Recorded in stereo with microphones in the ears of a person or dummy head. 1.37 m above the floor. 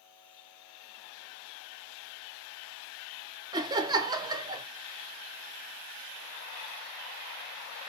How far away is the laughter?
About 0.5 m.